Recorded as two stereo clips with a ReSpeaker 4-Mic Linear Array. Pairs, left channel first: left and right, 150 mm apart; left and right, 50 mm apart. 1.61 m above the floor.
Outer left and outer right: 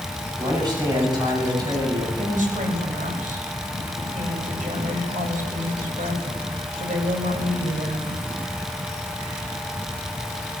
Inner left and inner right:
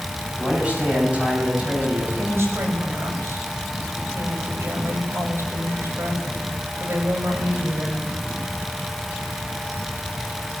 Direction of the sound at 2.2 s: 65° right (ahead or behind).